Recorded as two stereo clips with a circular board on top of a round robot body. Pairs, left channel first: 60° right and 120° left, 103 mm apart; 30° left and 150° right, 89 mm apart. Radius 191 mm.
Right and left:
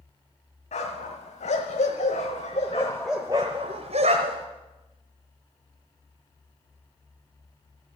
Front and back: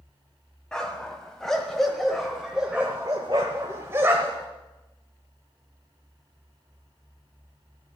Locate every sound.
0.7 s a dog barking: 55° right, 1.6 m; by 4.5 s 135° left, 1.1 m